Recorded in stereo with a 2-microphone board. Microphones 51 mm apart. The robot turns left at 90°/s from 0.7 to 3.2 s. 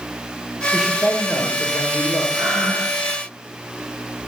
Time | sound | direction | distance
0.7 | a man speaking | 165° right | 2.5 m
2.3 | breathing | 60° right | 4.5 m